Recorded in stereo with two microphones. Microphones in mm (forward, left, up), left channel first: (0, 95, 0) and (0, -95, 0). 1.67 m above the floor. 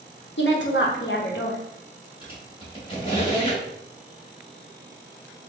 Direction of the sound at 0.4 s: 75° left (ahead or behind).